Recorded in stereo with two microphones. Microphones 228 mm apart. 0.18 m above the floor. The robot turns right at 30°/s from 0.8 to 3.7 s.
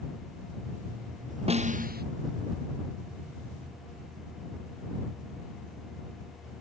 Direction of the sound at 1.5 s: 25° right (ahead or behind).